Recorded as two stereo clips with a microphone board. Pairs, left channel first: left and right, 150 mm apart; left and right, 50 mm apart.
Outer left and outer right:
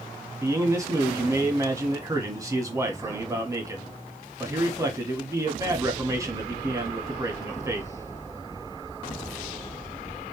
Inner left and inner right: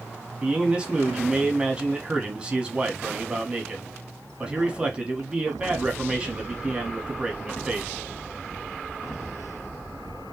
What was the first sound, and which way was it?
A man speaking, 20° right (ahead or behind).